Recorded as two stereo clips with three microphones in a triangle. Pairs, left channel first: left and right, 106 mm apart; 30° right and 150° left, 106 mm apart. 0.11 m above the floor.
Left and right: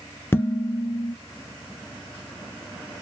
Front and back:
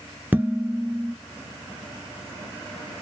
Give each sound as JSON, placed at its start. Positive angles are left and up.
{"t": 0.3, "sound": "dishes clattering", "azimuth_deg": 105, "distance_m": 0.9}